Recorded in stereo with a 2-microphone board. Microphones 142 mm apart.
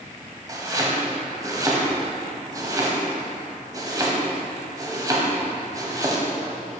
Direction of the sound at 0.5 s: 25° right (ahead or behind).